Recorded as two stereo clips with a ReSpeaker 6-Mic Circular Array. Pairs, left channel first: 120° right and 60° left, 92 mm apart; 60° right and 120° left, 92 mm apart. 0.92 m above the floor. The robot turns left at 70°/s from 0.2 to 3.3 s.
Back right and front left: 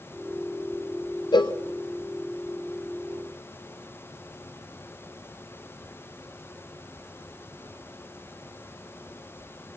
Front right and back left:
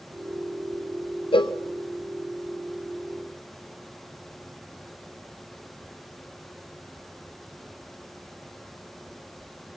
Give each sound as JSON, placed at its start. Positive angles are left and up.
{"t": 1.3, "sound": "a cowbell", "azimuth_deg": -80, "distance_m": 0.6}